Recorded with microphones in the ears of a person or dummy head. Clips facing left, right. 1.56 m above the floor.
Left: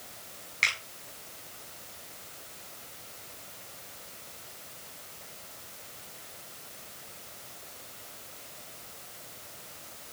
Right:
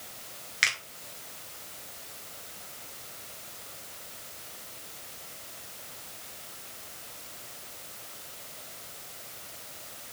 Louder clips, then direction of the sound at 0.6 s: Right 1 dB; 15° right (ahead or behind).